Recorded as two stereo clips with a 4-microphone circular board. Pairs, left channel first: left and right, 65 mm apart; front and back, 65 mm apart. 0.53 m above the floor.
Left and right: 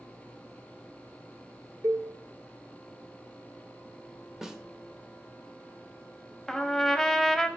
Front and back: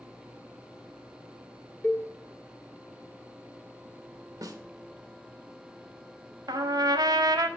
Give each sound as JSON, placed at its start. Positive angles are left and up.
{"t": 1.8, "sound": "a cowbell", "azimuth_deg": -65, "distance_m": 0.8}
{"t": 4.4, "sound": "a snare drum", "azimuth_deg": -175, "distance_m": 1.0}
{"t": 6.5, "sound": "a trumpet", "azimuth_deg": 175, "distance_m": 0.7}